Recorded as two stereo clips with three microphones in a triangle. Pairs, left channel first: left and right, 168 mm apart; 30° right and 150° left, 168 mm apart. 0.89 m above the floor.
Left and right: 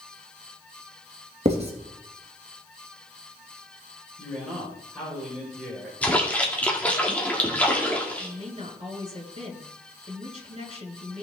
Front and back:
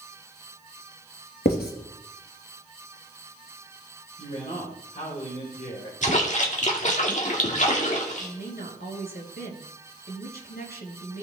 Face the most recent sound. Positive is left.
turn(degrees=-45)